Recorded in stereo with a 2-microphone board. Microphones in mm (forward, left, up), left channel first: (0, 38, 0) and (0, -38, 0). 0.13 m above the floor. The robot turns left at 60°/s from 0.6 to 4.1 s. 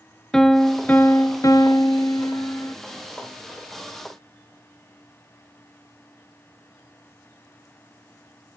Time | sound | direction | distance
0.3 | a piano | 170° left | 0.6 m